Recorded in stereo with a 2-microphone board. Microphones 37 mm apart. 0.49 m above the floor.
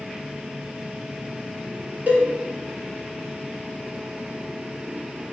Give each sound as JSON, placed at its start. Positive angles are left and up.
{"t": 2.1, "sound": "a cowbell", "side_deg": -50, "distance_m": 1.4}